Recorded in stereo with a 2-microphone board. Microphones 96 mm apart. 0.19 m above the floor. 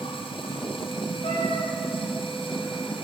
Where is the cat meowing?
65° left (ahead or behind), 6 m.